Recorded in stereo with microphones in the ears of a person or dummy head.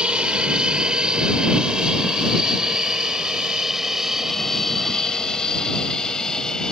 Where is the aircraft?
5° right (ahead or behind); by 6.7 s centre (ahead or behind).